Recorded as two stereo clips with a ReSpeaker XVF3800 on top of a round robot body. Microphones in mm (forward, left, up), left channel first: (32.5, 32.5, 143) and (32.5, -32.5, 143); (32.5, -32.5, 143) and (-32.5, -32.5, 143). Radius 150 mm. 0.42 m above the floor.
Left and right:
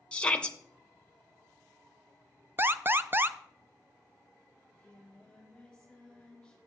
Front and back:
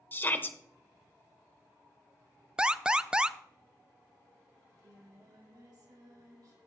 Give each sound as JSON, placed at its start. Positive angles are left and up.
{"t": 0.1, "sound": "a shout", "azimuth_deg": 30, "distance_m": 1.2}
{"t": 2.6, "sound": "an alarm", "azimuth_deg": -110, "distance_m": 0.6}
{"t": 4.6, "sound": "singing", "azimuth_deg": 170, "distance_m": 3.5}